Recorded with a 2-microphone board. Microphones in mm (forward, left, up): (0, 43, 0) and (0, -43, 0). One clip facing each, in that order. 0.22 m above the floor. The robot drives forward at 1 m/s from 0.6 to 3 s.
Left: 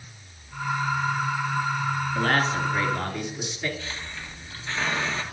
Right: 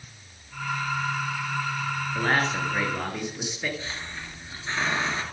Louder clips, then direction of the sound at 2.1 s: Even; 10° right (ahead or behind).